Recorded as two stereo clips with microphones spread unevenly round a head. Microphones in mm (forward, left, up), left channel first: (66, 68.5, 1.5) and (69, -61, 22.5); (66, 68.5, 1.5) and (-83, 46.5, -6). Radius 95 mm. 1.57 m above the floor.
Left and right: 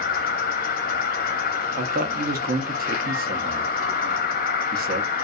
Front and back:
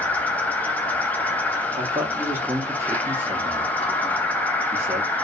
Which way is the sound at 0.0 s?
90° left.